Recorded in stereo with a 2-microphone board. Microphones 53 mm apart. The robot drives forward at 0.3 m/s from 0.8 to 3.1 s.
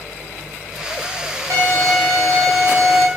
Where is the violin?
60° right (ahead or behind), 1.0 m; by 3.1 s 45° right (ahead or behind), 1.3 m.